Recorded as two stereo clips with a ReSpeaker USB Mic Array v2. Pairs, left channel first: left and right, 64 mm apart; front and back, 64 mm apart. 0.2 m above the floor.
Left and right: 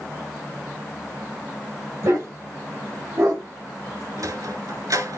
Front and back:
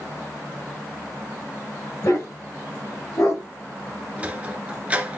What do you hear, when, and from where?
2.0 s a dog barking: 45° right, 7.5 m; by 3.4 s 40° right, 6 m
4.2 s a sliding door: 115° right, 1.3 m